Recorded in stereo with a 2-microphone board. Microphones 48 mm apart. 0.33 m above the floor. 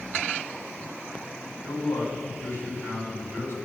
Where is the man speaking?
60° left (ahead or behind), 2.5 m.